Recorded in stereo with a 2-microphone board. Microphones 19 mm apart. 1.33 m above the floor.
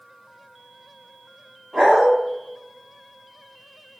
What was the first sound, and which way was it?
A dog barking, 30° right (ahead or behind).